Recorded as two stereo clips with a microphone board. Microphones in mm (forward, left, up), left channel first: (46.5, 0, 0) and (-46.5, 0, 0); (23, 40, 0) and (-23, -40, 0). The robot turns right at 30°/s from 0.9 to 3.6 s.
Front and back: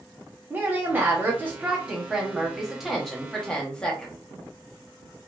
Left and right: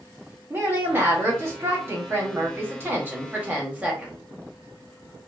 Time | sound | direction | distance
0.5 | a woman speaking | 150° right | 1.0 m